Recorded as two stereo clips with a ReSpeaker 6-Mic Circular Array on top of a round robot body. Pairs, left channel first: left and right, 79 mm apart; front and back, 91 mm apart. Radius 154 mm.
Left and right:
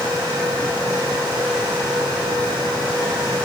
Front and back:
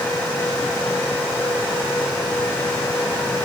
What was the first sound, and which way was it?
Only background noise.